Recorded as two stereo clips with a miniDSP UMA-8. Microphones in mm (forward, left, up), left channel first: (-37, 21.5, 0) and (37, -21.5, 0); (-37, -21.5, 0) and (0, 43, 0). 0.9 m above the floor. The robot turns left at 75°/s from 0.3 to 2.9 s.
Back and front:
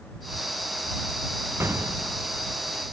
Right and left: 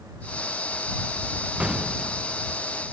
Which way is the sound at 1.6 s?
Straight ahead.